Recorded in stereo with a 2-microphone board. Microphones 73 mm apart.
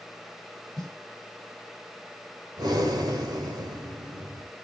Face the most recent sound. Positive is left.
turn(degrees=-75)  # may be behind; listen again after turning